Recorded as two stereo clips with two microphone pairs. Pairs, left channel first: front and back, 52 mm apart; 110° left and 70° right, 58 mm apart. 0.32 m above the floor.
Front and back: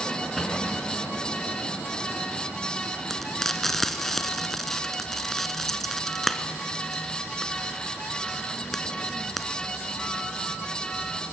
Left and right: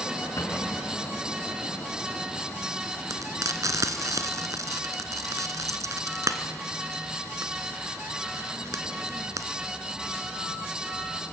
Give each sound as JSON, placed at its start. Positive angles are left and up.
{"t": 0.4, "sound": "a cupboard door", "azimuth_deg": 90, "distance_m": 3.5}
{"t": 3.1, "sound": "frying", "azimuth_deg": -85, "distance_m": 1.2}